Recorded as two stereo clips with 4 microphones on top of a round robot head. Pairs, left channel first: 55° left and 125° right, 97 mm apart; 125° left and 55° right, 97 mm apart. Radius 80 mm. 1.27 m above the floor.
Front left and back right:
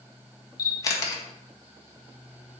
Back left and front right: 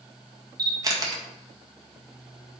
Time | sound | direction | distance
0.6 | a camera shutter | straight ahead | 1.8 m